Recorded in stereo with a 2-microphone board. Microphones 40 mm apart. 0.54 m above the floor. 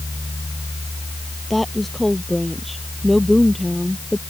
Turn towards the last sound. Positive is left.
turn(degrees=0)  # may be behind; listen again after turning